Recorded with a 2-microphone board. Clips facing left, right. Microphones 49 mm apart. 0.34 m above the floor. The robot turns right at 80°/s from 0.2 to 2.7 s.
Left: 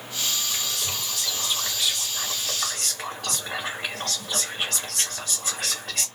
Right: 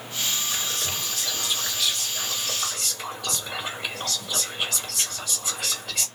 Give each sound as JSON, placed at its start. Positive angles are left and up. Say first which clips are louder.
{"t": 0.5, "sound": "whispering", "louder": "right 1 dB", "azimuth_deg": -105, "distance_m": 2.0}